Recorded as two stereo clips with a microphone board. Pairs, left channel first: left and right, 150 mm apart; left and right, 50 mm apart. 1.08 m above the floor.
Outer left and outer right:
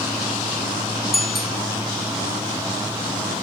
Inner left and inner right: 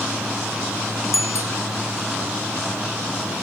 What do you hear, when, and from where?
1.1 s a bicycle bell: 85° left